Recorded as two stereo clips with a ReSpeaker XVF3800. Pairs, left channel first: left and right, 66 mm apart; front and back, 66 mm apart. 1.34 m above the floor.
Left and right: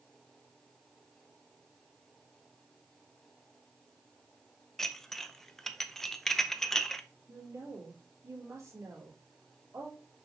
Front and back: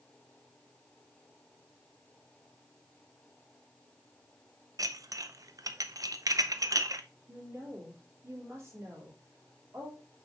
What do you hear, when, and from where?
4.8 s dishes clattering: 175° left, 0.5 m
7.3 s a woman speaking: 130° right, 3.5 m